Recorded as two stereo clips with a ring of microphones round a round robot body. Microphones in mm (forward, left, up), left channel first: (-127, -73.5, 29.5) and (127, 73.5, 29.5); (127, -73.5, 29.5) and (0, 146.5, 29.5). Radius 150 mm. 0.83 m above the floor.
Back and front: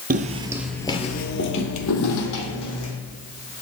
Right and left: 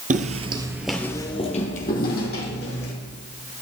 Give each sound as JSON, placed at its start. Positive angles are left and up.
{"t": 0.1, "sound": "footsteps", "azimuth_deg": 80, "distance_m": 1.0}